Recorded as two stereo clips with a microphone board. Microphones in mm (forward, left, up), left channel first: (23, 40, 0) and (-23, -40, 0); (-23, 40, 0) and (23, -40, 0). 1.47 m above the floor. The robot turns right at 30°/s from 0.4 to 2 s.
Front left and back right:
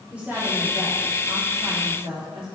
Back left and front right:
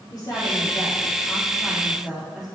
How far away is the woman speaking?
About 3.5 m.